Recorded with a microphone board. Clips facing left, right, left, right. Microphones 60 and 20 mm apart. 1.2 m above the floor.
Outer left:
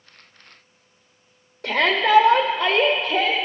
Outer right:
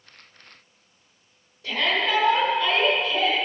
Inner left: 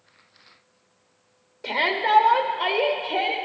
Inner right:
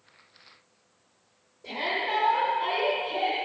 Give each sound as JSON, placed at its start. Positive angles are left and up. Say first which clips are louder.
{"t": 1.6, "sound": "a shout", "louder": "outer left 5 dB, inner left 7 dB", "side_deg": 70, "distance_m": 0.9}